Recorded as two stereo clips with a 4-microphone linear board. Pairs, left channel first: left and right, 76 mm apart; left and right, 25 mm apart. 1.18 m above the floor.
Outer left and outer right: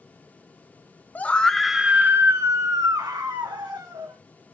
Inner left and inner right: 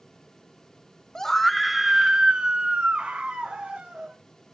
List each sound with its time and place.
1.1 s a scream: 20° left (ahead or behind), 0.7 m; by 4.2 s 70° right (ahead or behind), 1.5 m